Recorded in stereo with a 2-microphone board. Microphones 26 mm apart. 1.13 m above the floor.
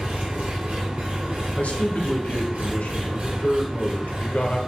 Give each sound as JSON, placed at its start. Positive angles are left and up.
{"t": 0.0, "sound": "an engine running", "side_deg": -65, "distance_m": 0.8}
{"t": 1.6, "sound": "a man speaking", "side_deg": 75, "distance_m": 0.5}